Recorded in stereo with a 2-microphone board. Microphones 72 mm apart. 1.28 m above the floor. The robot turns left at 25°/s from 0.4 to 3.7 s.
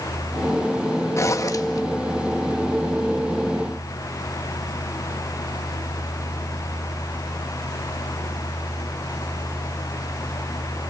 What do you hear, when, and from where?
1.2 s a zipper: 45° left (ahead or behind), 1.7 m; by 1.8 s 60° left (ahead or behind), 1.7 m